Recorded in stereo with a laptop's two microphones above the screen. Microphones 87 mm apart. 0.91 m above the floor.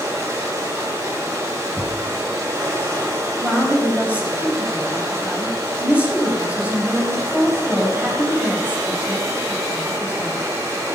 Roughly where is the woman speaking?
Centre.